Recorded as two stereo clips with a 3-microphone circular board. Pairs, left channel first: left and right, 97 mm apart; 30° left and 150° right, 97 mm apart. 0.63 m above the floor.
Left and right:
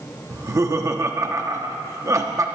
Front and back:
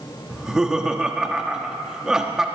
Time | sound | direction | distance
0.3 | laughter | 70° right | 1.0 m